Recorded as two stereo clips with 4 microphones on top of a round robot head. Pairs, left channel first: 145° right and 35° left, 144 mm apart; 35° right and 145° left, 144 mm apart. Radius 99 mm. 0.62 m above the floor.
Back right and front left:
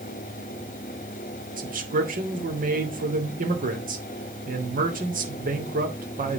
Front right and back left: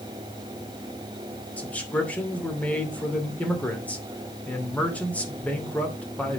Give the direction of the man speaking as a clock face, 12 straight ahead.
11 o'clock.